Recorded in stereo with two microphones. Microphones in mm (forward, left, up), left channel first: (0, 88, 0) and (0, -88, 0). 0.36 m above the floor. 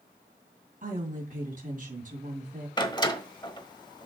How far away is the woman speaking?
About 3 m.